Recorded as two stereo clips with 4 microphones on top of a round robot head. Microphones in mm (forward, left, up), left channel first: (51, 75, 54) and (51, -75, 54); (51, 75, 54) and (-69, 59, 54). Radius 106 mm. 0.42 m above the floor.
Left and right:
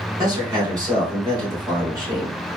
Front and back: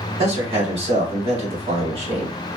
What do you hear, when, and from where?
0.2 s a man speaking: 155° right, 1.6 m